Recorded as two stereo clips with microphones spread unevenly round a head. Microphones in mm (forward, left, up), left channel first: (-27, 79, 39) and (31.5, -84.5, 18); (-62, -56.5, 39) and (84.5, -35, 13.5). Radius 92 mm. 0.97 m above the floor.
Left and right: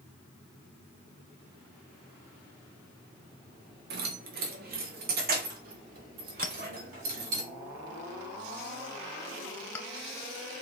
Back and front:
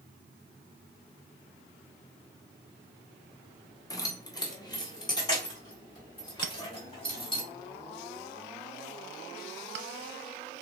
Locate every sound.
3.9 s keys jangling: 105° right, 1.1 m; by 7.4 s 110° right, 3.5 m
6.4 s a clink: 30° left, 0.6 m